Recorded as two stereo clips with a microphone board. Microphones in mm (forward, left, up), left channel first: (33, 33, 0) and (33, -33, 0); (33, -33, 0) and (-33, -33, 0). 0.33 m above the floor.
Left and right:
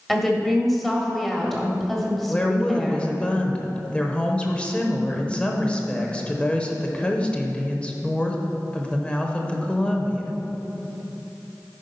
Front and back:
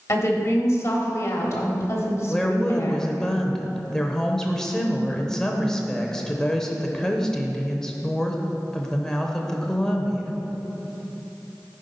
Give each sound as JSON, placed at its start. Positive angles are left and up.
{"t": 0.1, "sound": "a woman speaking", "azimuth_deg": 5, "distance_m": 1.4}
{"t": 2.3, "sound": "a woman speaking", "azimuth_deg": 65, "distance_m": 0.9}